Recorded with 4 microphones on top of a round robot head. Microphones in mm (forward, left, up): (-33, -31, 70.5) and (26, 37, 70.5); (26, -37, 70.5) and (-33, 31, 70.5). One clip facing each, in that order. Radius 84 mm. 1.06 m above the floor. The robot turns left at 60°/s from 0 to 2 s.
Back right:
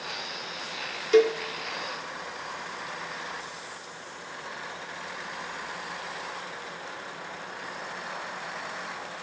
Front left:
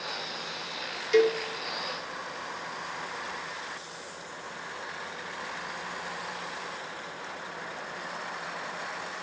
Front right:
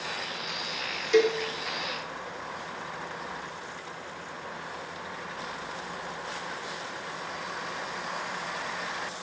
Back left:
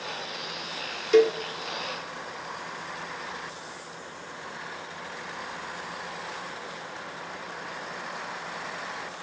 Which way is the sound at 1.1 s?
Straight behind.